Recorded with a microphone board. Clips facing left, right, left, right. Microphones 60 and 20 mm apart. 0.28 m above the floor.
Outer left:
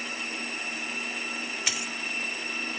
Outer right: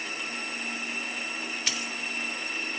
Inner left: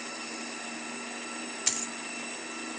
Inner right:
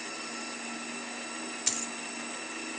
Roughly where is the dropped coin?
Centre.